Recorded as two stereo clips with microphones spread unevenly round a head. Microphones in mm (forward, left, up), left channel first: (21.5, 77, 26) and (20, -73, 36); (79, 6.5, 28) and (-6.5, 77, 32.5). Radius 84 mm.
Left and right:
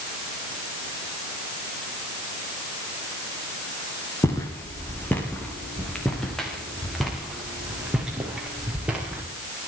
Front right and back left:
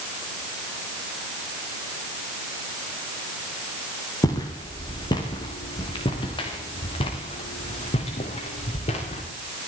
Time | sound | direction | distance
4.2 | footsteps | 15° left | 5 m